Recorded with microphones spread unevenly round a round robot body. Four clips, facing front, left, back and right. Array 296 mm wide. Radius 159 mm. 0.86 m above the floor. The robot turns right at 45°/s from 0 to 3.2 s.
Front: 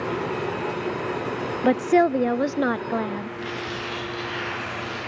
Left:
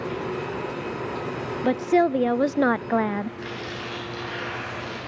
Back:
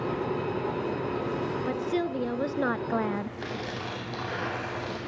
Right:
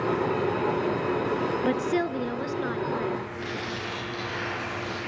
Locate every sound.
1.6 s a woman speaking: 10° left, 0.6 m; by 3.4 s 80° left, 0.6 m
3.4 s tearing paper: 175° left, 7 m